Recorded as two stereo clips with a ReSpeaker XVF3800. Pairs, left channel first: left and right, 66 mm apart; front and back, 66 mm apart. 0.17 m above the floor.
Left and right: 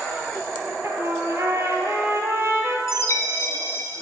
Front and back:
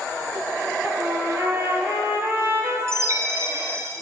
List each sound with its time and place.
0.8 s a trumpet: 135° right, 2.5 m
2.9 s a chime: 135° left, 2 m